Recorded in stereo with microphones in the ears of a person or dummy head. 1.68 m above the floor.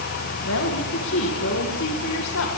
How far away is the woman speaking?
About 2 m.